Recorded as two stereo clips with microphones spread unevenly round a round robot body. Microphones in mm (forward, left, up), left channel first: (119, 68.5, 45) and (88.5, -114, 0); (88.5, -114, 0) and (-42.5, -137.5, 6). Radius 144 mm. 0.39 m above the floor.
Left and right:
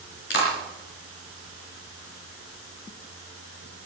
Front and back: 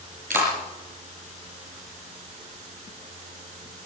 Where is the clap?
135° left, 4.5 m.